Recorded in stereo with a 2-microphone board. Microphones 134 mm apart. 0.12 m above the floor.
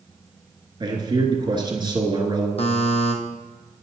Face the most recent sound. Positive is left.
turn(degrees=50)  # may be behind; listen again after turning